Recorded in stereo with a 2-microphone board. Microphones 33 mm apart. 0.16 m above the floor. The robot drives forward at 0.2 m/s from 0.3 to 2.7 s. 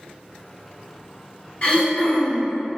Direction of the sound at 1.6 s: 35° left (ahead or behind).